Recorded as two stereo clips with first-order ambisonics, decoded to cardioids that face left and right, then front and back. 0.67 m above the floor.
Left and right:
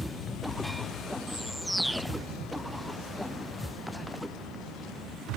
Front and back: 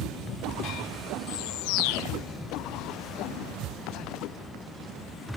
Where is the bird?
Straight ahead.